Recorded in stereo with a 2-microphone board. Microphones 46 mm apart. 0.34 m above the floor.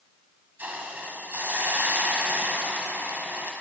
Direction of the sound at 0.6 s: 45° right (ahead or behind).